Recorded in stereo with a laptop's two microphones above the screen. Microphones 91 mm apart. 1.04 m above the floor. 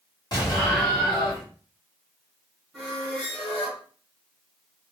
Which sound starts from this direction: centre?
A squeak, at 2.7 s.